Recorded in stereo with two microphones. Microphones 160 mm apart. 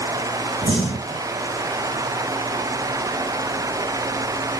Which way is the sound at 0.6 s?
40° right (ahead or behind).